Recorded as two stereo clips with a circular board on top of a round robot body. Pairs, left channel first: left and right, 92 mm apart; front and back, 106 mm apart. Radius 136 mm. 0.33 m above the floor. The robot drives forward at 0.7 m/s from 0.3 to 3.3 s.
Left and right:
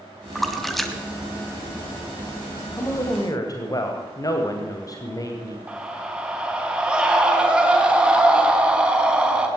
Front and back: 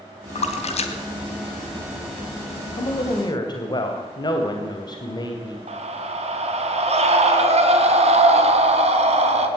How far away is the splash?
About 2.5 m.